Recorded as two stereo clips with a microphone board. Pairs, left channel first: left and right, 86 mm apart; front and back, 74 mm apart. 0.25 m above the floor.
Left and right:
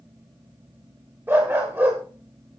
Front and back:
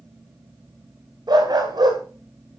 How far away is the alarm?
No alarm in this recording.